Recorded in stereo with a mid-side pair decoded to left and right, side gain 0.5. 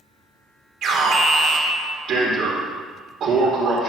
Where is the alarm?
60° right, 3 m.